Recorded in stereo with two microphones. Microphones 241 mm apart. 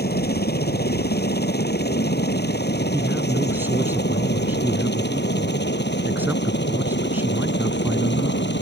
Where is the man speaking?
10° right (ahead or behind).